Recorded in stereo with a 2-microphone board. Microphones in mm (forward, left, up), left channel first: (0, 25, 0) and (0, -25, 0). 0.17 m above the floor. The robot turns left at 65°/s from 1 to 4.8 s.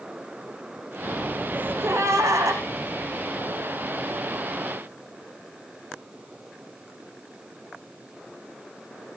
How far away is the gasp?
About 8.5 m.